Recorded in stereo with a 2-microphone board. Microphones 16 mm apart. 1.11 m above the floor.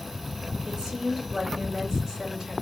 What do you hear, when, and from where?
0.7 s a woman speaking: 40° right (ahead or behind), 2.5 m